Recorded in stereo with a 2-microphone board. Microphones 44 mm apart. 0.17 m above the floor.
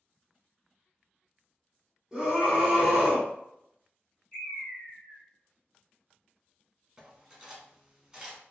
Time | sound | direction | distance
2.1 | a scream | 15° right (ahead or behind) | 1.1 m
4.3 | a bird | 20° left (ahead or behind) | 1.5 m
7.0 | cutlery clinking | 15° right (ahead or behind) | 0.9 m